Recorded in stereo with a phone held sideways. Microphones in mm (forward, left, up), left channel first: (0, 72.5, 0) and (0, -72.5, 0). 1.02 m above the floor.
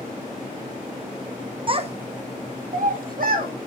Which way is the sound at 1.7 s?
40° right (ahead or behind).